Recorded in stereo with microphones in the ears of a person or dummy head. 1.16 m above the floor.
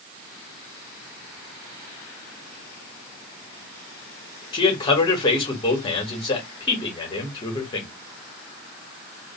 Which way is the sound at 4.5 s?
25° left (ahead or behind).